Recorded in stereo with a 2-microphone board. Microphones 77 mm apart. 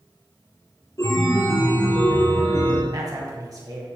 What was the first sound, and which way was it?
A chime, 45° left (ahead or behind).